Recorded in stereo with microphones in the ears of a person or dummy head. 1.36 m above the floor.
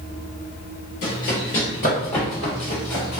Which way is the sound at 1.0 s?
35° left (ahead or behind).